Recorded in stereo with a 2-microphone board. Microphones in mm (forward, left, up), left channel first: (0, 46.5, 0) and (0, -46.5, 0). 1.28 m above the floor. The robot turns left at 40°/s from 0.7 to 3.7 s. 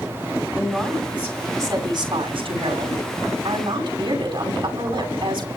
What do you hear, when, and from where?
0.6 s a woman speaking: 5° left, 9 m; by 5.5 s 115° right, 9 m